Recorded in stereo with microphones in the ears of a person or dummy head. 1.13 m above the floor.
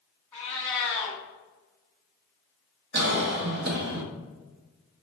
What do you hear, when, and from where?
0.3 s a cat meowing: 10° left (ahead or behind), 1.2 m
2.9 s a cough: 65° right (ahead or behind), 1.0 m